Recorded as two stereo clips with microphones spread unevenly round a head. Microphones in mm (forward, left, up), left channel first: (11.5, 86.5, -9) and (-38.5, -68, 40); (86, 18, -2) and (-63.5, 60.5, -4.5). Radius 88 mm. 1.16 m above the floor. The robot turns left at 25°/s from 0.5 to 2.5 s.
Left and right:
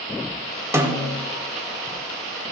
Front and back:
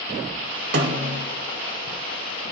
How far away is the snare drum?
About 2 m.